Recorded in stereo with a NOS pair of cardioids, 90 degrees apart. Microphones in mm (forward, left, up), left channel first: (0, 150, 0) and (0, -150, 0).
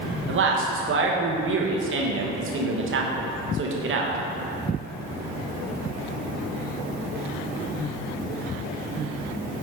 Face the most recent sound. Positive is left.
turn(degrees=-50)